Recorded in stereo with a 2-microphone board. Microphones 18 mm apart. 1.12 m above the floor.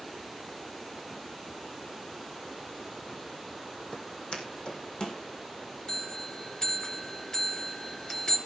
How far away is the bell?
About 3.5 m.